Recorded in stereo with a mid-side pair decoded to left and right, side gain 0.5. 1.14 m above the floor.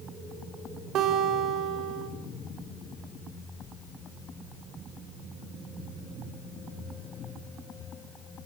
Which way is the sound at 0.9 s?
70° right.